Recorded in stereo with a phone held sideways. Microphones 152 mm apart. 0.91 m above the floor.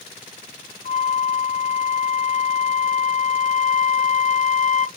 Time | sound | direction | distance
0.8 | a flute | 50° left (ahead or behind) | 0.7 m